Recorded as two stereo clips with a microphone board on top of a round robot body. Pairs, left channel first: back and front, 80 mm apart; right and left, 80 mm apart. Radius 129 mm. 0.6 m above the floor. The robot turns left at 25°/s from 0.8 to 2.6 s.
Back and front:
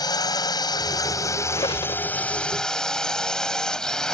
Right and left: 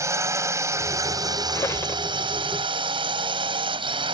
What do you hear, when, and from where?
0.0 s a drone: 145° left; by 4.1 s 100° left
1.5 s a squeak: 145° right; by 2.0 s 155° right